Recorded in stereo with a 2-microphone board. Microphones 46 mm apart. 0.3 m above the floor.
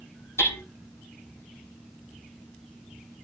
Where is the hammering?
70° left (ahead or behind), 8.5 m.